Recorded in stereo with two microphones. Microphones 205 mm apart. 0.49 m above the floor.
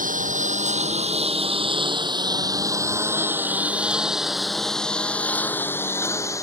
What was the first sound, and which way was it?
A lawn mower, 40° right (ahead or behind).